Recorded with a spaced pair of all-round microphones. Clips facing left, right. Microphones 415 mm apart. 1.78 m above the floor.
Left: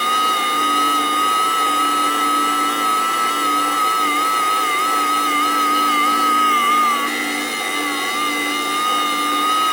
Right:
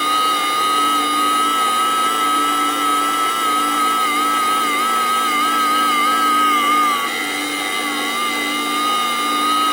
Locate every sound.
0.0 s a machine running: centre (ahead or behind)